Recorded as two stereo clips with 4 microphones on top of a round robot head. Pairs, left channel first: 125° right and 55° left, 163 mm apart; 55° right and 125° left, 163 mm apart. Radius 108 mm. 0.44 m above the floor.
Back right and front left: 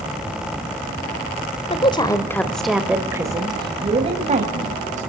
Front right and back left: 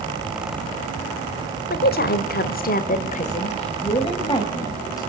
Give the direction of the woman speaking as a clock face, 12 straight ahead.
2 o'clock.